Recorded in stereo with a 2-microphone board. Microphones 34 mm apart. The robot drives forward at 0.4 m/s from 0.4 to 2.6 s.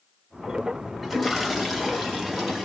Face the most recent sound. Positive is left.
turn(degrees=0)  # may be behind; listen again after turning